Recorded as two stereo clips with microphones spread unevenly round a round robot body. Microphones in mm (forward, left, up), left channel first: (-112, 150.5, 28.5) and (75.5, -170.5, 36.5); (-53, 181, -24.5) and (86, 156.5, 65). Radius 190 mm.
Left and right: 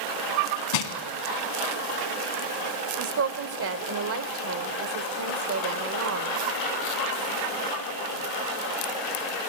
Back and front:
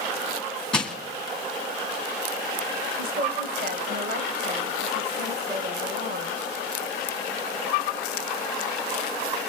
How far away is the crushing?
About 2.5 m.